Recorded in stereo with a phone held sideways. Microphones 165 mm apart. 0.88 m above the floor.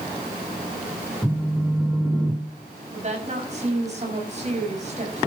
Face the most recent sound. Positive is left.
turn(degrees=-45)  # may be behind; listen again after turning